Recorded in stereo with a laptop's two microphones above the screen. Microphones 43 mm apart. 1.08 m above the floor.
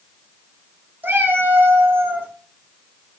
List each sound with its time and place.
1.0 s a cat meowing: 50° right (ahead or behind), 0.6 m